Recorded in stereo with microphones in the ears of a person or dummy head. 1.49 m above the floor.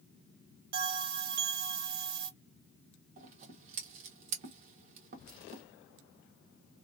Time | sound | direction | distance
0.7 | a bell | 50° right (ahead or behind) | 1.2 m
3.2 | scissors | 45° right (ahead or behind) | 1.2 m